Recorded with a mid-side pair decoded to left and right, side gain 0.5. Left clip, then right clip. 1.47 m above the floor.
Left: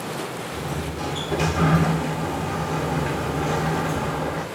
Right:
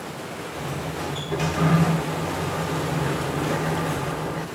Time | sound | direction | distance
0.5 | a sliding door | 20° left | 0.9 m